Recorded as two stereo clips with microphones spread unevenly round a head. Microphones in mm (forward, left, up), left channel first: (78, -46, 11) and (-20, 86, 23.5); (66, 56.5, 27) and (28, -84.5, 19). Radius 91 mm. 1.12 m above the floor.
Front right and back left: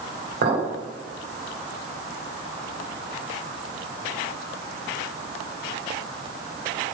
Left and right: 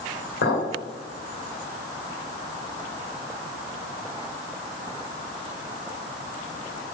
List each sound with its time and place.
0.4 s a clink: 105° left, 4 m